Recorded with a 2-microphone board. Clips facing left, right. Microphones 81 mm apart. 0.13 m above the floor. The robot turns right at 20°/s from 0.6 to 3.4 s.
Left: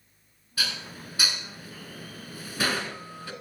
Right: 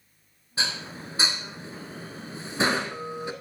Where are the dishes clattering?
25° right (ahead or behind), 1.1 m; by 3.3 s 20° right (ahead or behind), 1.1 m.